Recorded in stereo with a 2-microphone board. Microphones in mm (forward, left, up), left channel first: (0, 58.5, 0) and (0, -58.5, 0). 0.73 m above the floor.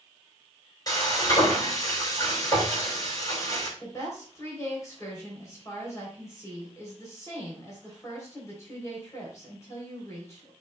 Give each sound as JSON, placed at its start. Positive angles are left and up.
{"t": 0.9, "sound": "frying", "side_deg": 30, "distance_m": 4.0}
{"t": 3.8, "sound": "a woman speaking", "side_deg": 25, "distance_m": 3.0}